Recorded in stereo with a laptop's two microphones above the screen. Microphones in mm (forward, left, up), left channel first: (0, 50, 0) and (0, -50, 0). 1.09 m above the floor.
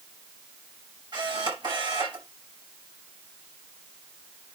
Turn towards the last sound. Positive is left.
turn(degrees=-45)  # may be behind; listen again after turning